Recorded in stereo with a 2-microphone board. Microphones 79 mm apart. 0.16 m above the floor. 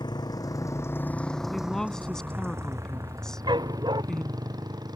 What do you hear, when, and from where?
0.0 s a motorcycle: 65° left (ahead or behind); by 5.0 s 55° right (ahead or behind)
1.5 s a woman speaking: 5° left (ahead or behind)
3.5 s a dog barking: 65° right (ahead or behind)